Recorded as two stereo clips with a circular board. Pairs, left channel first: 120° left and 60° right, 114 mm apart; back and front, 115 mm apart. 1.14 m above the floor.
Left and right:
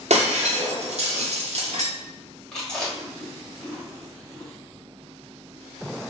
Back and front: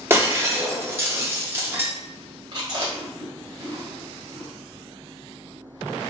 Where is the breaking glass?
70° right, 0.8 m.